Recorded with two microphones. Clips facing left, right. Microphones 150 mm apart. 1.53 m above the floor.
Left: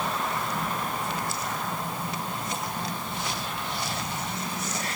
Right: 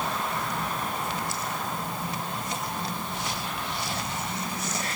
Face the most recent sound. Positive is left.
No sound to turn to.